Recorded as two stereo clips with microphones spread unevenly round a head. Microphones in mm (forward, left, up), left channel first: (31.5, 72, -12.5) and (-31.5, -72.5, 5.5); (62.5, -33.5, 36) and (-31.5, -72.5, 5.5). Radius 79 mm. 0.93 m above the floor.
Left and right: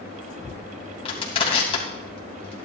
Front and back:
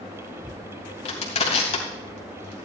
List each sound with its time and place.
1.1 s crushing: 5° left, 3 m